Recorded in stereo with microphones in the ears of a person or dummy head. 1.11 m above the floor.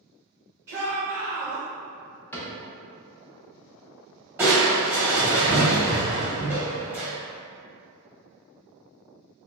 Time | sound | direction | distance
0.7 | a shout | 10° right (ahead or behind) | 1.5 m
2.3 | a cupboard door | 5° left (ahead or behind) | 0.7 m
4.4 | crushing | 10° right (ahead or behind) | 0.7 m